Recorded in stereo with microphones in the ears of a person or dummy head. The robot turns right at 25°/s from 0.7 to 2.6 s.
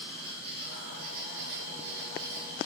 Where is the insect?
145° right, 1.9 m; by 2.7 s 100° right, 1.9 m.